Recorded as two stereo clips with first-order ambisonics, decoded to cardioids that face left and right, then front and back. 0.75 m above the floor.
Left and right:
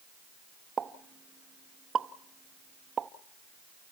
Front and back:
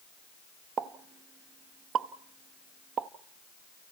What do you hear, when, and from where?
0.8 s a pop: 145° right, 0.7 m